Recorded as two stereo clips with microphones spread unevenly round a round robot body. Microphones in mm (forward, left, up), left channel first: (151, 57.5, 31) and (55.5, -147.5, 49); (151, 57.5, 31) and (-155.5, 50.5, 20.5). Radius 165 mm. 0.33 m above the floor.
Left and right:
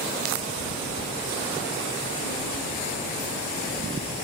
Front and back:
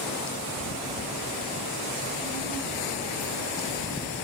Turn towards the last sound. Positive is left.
turn(degrees=35)